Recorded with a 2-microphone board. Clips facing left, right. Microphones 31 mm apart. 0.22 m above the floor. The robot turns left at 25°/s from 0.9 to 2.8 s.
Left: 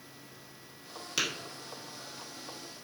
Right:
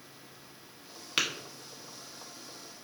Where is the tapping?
35° right (ahead or behind), 0.9 m.